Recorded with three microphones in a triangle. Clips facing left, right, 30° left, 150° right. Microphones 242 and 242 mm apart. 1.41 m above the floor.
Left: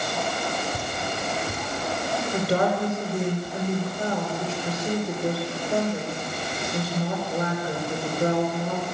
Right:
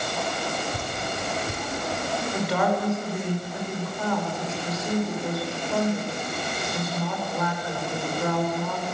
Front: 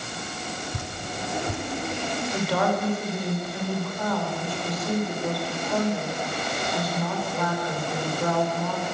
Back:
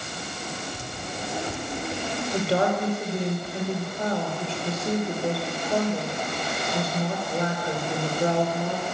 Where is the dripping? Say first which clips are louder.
Left 1 dB, front 1 dB; 5° left, 3.5 m.